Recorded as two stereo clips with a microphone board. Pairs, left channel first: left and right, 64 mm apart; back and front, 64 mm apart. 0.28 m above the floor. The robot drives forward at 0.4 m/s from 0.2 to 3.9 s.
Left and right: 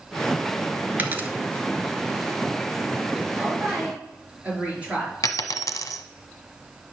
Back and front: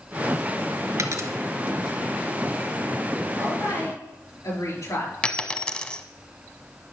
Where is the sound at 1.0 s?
30° right, 1.3 m; by 1.3 s 35° right, 1.2 m.